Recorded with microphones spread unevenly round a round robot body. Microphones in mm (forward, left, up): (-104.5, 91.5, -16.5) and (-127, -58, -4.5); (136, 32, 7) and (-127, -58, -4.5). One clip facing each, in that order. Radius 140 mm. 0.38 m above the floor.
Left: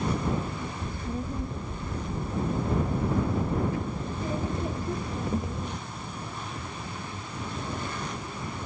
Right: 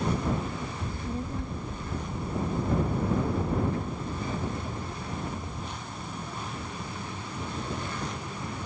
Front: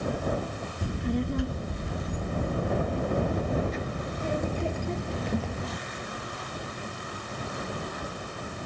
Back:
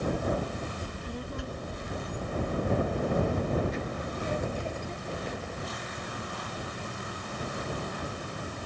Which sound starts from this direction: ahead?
A child speaking, at 0.8 s.